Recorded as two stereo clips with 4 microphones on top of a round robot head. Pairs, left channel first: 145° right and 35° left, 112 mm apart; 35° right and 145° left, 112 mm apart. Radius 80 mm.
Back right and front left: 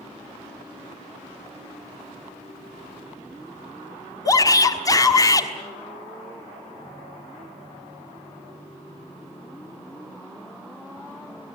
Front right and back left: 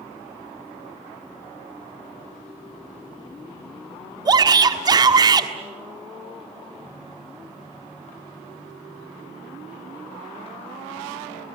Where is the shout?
175° left, 1.4 m.